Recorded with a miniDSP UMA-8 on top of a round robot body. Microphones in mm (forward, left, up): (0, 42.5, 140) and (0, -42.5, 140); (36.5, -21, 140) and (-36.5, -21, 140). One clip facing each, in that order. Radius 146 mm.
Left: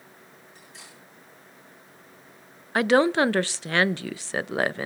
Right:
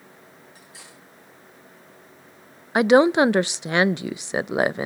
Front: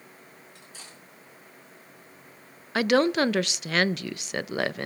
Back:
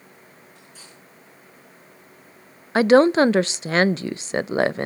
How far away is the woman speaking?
About 0.5 m.